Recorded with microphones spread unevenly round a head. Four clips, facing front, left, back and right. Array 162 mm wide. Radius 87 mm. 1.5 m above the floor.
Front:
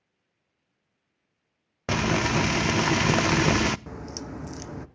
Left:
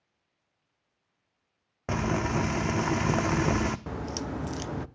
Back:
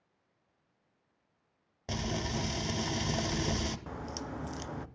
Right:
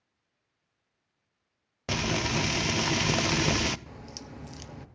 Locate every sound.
1.9 s frying: straight ahead, 0.7 m
3.9 s a crack: 55° left, 0.8 m